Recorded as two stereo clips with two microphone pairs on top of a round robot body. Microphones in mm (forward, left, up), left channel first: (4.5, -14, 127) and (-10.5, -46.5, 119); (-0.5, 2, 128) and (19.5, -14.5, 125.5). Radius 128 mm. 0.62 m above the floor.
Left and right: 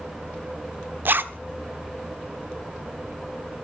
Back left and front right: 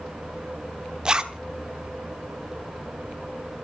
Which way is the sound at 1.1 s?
105° right.